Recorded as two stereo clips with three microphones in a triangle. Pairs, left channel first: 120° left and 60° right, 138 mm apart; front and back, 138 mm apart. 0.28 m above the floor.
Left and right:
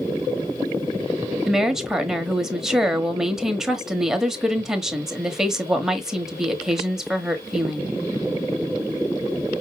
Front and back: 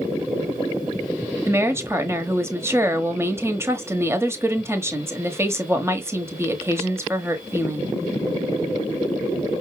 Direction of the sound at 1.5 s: 145° right.